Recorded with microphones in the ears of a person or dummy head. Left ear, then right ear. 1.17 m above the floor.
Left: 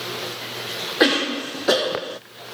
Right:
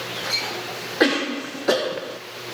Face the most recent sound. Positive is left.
turn(degrees=5)  # may be behind; listen again after turning